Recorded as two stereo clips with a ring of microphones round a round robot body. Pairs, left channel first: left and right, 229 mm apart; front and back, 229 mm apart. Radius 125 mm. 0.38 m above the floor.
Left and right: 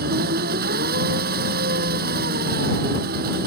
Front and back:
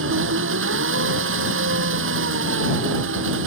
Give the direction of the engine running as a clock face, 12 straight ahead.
5 o'clock.